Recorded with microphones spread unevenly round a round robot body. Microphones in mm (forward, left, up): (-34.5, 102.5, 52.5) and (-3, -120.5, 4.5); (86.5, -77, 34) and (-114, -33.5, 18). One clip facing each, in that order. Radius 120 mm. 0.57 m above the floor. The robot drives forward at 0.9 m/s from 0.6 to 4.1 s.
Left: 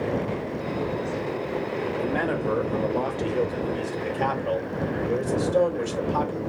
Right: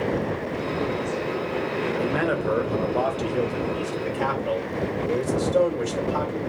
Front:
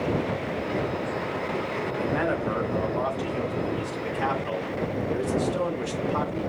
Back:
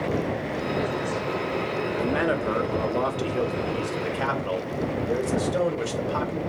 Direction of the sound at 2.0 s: 150° right.